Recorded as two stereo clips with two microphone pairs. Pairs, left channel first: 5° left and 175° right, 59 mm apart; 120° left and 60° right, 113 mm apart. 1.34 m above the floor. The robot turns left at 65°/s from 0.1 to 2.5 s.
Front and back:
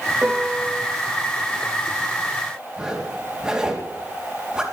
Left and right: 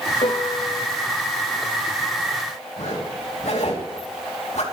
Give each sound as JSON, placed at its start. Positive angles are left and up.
{"t": 0.2, "sound": "a piano", "azimuth_deg": 125, "distance_m": 1.8}
{"t": 2.8, "sound": "a zipper", "azimuth_deg": 105, "distance_m": 3.0}